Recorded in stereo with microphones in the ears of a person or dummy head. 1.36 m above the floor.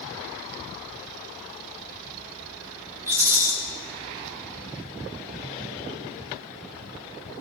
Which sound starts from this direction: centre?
A rattle, at 3.1 s.